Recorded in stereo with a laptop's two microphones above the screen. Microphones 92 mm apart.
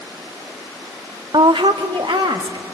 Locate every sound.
1.3 s a woman speaking: 55° right (ahead or behind), 0.6 m; by 2.8 s 65° right (ahead or behind), 2.0 m